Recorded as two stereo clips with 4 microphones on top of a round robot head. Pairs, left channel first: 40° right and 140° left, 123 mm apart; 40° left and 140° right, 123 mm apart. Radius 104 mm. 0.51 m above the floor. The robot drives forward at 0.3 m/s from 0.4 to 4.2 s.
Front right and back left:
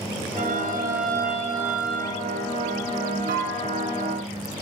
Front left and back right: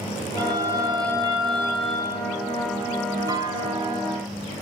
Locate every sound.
0.4 s a violin: 155° left, 1.0 m; by 2.3 s 165° left, 1.5 m
3.3 s a clunk: 155° left, 1.0 m; by 4.1 s 160° left, 1.3 m